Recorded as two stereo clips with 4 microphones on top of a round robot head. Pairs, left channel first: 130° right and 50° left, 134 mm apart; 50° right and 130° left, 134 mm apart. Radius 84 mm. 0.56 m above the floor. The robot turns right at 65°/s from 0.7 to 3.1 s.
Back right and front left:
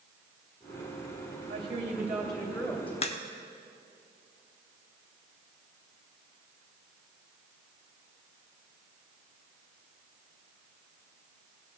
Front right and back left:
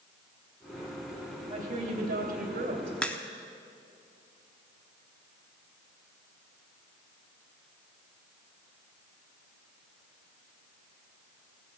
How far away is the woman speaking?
About 2.5 m.